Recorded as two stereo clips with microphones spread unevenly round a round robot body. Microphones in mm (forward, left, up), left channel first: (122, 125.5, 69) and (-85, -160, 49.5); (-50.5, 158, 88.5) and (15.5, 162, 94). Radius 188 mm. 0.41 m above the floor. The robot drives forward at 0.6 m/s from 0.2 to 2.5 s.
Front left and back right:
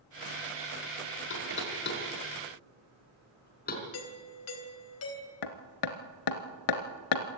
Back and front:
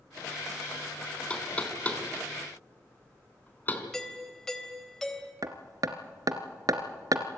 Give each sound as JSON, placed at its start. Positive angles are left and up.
{"t": 1.3, "sound": "knocking", "azimuth_deg": 110, "distance_m": 4.0}
{"t": 3.9, "sound": "a doorbell", "azimuth_deg": 100, "distance_m": 4.0}
{"t": 5.4, "sound": "hammering", "azimuth_deg": 30, "distance_m": 1.9}